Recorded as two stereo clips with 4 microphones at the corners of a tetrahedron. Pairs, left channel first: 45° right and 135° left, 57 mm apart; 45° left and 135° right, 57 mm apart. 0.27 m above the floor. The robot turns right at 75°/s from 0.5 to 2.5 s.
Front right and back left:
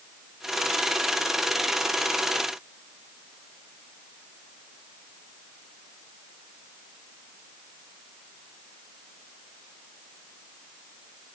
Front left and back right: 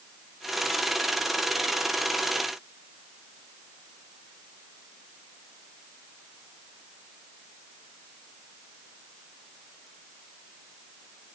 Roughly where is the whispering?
I don't hear whispering.